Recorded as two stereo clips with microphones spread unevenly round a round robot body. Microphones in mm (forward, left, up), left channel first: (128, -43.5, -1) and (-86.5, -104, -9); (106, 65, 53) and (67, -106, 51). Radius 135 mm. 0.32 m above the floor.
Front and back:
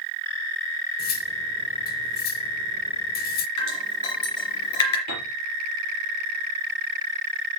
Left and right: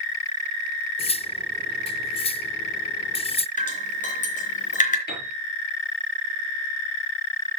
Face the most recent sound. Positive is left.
turn(degrees=50)